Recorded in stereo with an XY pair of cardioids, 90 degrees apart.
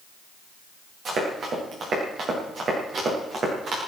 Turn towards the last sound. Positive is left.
turn(degrees=-65)